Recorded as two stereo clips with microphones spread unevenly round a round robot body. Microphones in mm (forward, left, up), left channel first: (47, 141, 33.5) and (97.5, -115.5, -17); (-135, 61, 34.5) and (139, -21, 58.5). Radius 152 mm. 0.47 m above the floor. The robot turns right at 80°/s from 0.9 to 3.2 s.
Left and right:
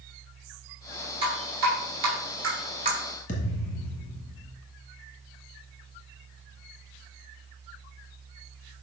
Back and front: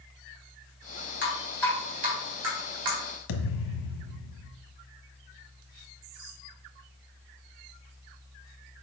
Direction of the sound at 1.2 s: 150° right.